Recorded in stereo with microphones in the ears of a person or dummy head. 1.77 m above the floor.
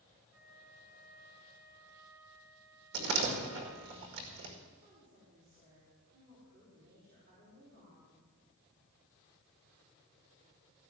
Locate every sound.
0.3 s a flute: 20° right (ahead or behind), 4 m
2.9 s a door slam: 65° right (ahead or behind), 2 m
4.8 s a woman speaking: 55° right (ahead or behind), 5 m